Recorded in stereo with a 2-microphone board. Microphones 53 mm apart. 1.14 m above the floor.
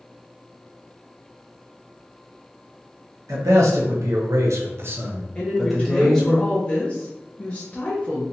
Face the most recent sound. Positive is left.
turn(degrees=25)  # may be behind; listen again after turning